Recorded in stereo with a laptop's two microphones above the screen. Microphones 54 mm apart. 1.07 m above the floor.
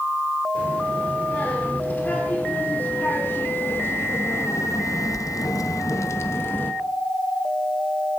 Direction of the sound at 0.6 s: 30° left (ahead or behind).